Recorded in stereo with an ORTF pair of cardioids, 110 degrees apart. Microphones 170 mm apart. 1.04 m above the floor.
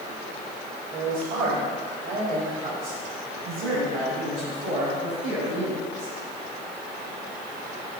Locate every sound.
0.9 s a man speaking: 65° right, 4 m; by 6.1 s 60° right, 7 m